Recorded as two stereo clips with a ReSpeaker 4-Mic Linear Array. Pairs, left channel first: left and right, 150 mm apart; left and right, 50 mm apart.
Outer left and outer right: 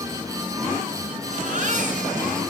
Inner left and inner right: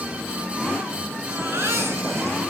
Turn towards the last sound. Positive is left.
turn(degrees=-60)  # may be behind; listen again after turning